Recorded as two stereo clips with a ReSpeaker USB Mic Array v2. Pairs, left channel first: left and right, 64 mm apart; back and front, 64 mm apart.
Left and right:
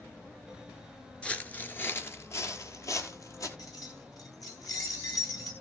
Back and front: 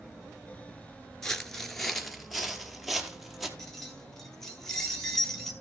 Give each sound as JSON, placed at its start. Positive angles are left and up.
{"t": 1.2, "sound": "footsteps", "azimuth_deg": 115, "distance_m": 0.9}
{"t": 3.6, "sound": "keys jangling", "azimuth_deg": 100, "distance_m": 2.0}